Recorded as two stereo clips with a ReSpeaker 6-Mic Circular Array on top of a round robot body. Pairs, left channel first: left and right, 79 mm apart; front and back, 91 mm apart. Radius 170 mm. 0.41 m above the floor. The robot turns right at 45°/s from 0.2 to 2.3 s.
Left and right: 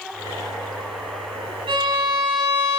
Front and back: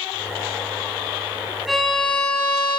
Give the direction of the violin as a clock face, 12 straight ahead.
3 o'clock.